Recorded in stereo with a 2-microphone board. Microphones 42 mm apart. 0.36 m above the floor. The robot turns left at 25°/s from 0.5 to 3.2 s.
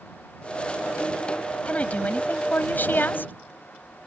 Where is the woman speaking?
140° left; by 3.3 s 100° left.